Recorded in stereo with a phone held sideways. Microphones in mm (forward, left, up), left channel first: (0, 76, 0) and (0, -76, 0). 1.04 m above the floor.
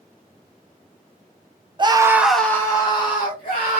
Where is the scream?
30° right (ahead or behind), 0.6 m; by 3.8 s 45° left (ahead or behind), 1.2 m.